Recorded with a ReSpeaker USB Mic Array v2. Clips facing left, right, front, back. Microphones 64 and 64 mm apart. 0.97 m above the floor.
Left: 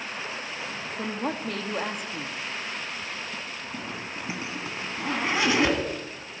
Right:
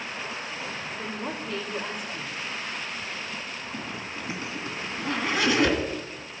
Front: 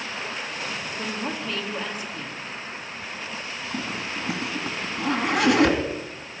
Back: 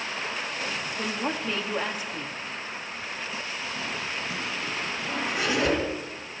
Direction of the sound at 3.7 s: 25° left.